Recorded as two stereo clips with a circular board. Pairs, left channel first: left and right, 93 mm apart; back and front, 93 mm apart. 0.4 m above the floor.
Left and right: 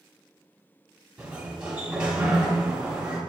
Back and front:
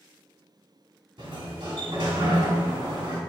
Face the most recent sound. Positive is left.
turn(degrees=-10)